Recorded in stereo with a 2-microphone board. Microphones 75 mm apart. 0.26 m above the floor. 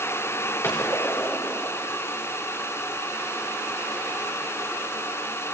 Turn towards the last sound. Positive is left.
turn(degrees=35)  # may be behind; listen again after turning